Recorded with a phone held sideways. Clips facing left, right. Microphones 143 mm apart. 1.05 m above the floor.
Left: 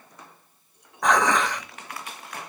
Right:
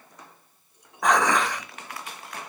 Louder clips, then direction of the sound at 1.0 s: Even; 5° right (ahead or behind).